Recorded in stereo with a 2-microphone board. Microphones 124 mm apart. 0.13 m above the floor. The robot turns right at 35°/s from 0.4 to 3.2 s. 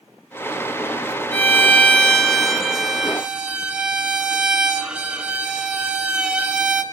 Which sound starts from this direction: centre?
A violin, at 1.3 s.